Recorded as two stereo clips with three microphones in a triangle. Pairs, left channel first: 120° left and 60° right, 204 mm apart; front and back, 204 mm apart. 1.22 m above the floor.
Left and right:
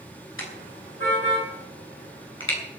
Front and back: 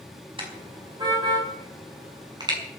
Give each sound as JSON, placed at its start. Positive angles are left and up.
{"t": 0.4, "sound": "a car horn", "azimuth_deg": 115, "distance_m": 5.5}